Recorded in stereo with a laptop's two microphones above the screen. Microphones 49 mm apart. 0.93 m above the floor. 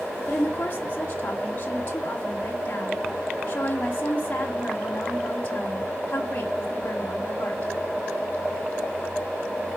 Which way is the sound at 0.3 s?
35° left (ahead or behind).